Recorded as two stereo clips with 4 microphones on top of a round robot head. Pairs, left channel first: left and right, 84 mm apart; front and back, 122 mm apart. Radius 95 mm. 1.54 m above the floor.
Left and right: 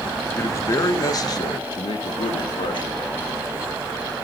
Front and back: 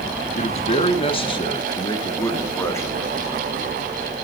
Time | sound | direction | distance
0.3 | a man speaking | 30° left | 2 m